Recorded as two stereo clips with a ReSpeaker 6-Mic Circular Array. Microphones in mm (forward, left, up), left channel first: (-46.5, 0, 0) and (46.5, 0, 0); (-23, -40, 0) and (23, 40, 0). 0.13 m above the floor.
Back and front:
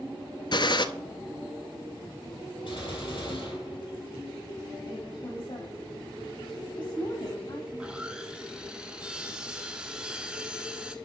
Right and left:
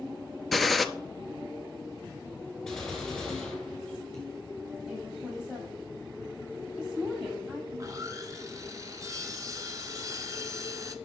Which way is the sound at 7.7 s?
75° left.